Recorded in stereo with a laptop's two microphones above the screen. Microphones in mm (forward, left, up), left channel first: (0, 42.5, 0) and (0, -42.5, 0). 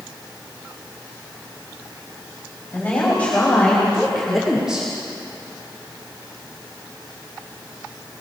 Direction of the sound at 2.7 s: 20° left (ahead or behind).